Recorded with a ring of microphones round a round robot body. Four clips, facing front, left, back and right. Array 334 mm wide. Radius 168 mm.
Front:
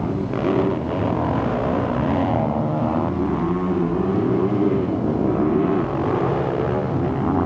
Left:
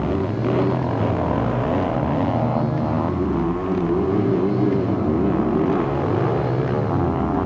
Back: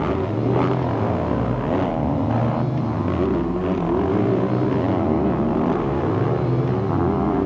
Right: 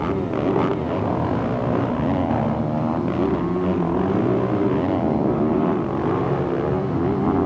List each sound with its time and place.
Only background noise.